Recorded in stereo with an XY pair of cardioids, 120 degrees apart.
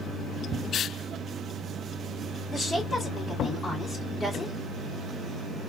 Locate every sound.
2.5 s a woman speaking: 25° left, 2.5 m